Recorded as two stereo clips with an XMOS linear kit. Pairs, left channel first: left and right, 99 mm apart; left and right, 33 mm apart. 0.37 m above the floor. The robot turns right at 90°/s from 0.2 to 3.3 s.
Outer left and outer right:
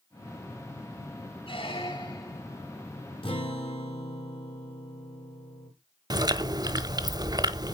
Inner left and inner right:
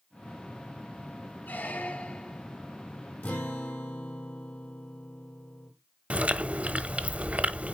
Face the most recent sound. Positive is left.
turn(degrees=-45)  # may be behind; listen again after turning